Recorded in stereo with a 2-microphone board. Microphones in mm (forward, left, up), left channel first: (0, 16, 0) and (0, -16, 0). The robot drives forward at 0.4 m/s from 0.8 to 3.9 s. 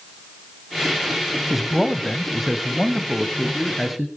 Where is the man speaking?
5° right (ahead or behind), 1.0 m.